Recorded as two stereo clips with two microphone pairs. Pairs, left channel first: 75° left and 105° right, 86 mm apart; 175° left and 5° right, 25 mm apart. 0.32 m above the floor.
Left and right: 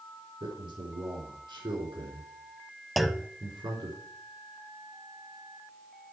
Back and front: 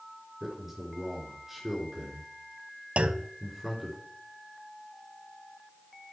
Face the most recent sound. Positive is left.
turn(degrees=-15)